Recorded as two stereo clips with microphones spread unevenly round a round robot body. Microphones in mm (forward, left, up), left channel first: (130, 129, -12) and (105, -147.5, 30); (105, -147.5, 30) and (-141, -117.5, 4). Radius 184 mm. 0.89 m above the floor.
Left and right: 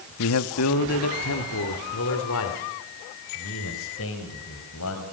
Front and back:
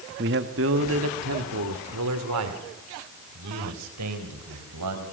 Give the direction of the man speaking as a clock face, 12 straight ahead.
8 o'clock.